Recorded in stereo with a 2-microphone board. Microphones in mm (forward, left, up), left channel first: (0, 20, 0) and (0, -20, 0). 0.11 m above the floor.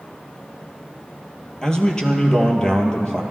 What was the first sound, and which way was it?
A man speaking, 15° left (ahead or behind).